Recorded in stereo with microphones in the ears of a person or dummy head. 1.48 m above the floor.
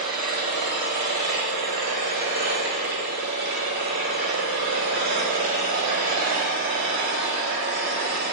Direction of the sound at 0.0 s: 60° right (ahead or behind).